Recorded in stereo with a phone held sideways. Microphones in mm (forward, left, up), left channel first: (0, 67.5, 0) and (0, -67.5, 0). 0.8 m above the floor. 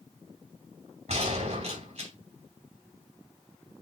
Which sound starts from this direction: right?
A gunshot, at 1.1 s.